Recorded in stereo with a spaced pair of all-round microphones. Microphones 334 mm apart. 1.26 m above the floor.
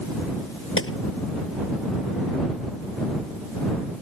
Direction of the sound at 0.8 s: 35° left (ahead or behind).